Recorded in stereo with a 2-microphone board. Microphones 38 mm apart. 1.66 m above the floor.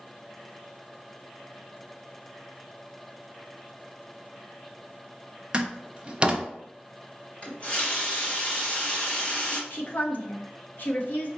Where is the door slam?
30° right (ahead or behind), 0.6 m.